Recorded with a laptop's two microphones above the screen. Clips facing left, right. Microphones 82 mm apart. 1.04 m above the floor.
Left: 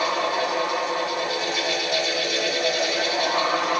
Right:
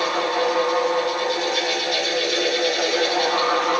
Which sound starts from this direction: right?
A fan, at 0.0 s.